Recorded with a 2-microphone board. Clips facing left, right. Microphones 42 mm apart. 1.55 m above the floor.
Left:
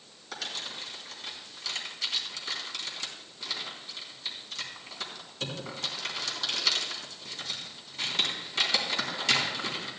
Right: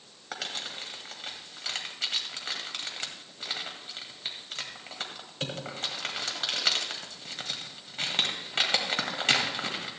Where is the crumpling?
50° right (ahead or behind), 2 m.